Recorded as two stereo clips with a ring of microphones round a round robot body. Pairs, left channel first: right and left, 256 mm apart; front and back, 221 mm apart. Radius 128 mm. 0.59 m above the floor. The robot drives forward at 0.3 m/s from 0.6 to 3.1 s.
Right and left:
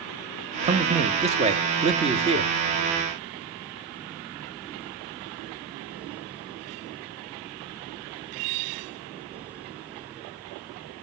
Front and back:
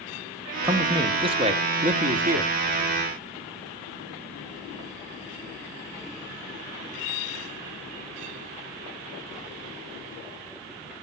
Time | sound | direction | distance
0.6 | a man speaking | 115° left | 0.9 m